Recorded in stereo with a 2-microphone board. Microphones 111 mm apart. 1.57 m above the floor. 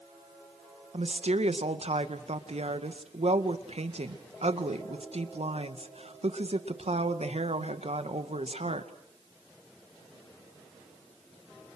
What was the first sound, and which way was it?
A woman speaking, 75° right (ahead or behind).